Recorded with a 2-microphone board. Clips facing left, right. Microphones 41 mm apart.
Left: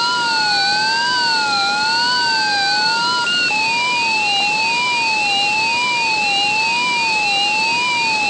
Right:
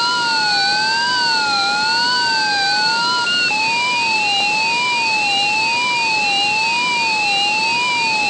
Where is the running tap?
No running tap in this recording.